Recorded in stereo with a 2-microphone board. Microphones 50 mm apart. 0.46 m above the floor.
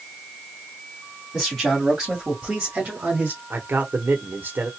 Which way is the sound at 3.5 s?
45° right (ahead or behind).